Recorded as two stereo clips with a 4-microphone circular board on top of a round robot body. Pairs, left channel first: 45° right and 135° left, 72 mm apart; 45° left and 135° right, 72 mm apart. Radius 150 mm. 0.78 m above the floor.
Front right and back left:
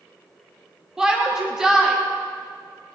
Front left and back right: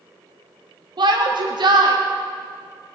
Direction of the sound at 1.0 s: 145° right.